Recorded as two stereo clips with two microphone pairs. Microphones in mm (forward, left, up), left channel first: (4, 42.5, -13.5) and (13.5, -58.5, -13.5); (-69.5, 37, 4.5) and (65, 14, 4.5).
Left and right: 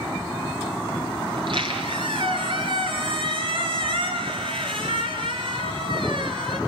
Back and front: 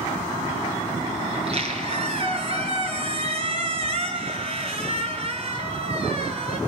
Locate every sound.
1.3 s a squeak: 50° right, 4.5 m